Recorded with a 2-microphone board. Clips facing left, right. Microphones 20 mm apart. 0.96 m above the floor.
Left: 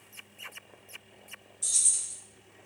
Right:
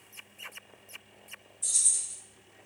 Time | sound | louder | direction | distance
1.6 | keys jangling | left 1 dB | 45° left (ahead or behind) | 0.7 m